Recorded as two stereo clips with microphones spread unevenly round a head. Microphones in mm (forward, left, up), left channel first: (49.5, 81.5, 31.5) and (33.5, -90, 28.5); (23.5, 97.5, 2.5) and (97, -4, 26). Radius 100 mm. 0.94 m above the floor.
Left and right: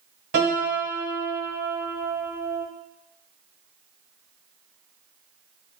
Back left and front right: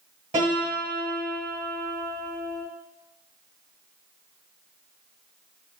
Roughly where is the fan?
No fan in this recording.